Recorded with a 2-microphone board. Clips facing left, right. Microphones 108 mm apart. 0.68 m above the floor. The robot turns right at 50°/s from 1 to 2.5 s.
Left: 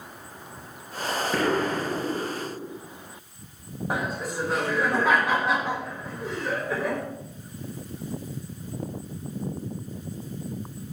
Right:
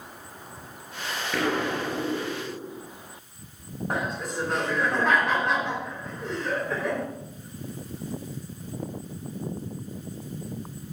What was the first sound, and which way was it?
An explosion, 160° left.